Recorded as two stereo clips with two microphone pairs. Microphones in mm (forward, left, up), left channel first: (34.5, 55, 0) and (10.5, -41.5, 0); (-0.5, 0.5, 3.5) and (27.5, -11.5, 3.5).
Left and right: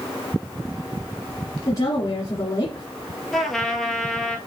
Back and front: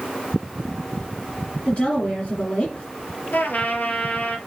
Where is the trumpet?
165° left, 1.4 m.